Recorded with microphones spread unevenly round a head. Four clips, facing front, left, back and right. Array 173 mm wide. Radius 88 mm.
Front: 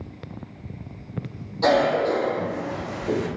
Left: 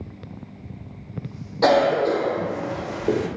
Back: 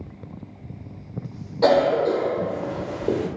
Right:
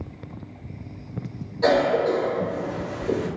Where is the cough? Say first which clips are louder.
Left 2 dB, back 2 dB; 120° left, 0.9 m.